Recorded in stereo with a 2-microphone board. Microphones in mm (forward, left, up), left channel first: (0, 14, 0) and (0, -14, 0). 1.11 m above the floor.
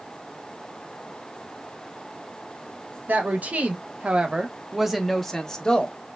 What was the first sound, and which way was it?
A woman speaking, 70° right (ahead or behind).